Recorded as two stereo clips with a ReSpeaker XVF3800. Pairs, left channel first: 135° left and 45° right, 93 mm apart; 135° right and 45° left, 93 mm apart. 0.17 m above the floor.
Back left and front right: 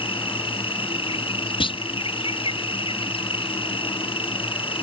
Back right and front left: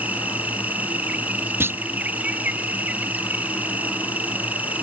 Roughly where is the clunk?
Left.